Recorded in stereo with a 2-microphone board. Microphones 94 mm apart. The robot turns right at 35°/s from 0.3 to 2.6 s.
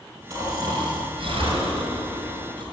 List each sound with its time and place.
0.3 s snoring: 140° right, 4.5 m; by 2.6 s 60° right, 4.5 m